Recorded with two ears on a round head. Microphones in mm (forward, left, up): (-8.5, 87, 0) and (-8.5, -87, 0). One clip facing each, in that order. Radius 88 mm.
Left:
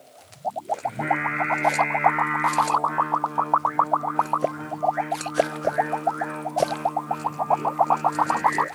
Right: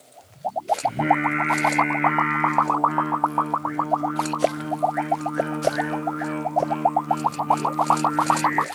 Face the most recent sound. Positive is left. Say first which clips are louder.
# right 6 dB
turn(degrees=-40)  # may be behind; listen again after turning